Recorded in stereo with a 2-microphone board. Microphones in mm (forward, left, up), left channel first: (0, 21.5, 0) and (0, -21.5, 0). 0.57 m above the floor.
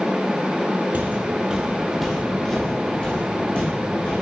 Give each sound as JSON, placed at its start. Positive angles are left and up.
{"t": 0.9, "sound": "footsteps", "side_deg": -40, "distance_m": 1.2}